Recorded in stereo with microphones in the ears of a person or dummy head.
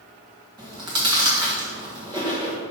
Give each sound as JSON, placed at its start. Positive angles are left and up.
{"t": 0.6, "sound": "chewing", "side_deg": -25, "distance_m": 1.4}